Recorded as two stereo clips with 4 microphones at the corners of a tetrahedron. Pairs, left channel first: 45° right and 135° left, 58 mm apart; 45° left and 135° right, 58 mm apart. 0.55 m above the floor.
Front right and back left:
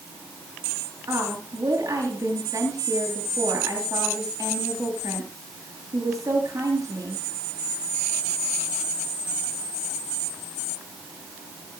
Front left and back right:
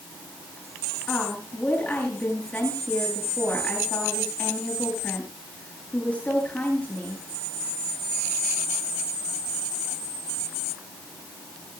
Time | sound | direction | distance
1.1 | a woman speaking | 110° left | 9.5 m